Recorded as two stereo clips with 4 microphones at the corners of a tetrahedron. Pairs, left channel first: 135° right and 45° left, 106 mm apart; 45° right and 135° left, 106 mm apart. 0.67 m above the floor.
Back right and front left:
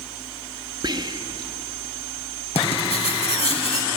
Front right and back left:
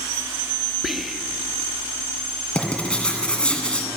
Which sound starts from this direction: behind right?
Writing, at 2.5 s.